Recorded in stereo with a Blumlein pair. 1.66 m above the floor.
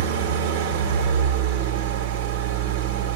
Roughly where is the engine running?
Ahead right.